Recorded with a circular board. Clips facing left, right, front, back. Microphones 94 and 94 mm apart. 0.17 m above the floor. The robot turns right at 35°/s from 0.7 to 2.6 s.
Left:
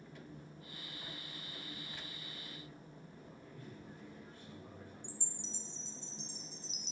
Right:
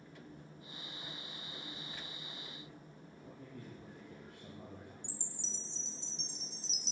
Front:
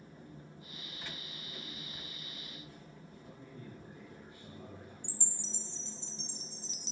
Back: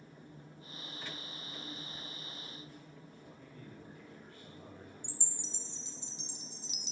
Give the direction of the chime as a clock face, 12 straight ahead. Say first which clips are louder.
Left 1 dB, front 1 dB; 4 o'clock.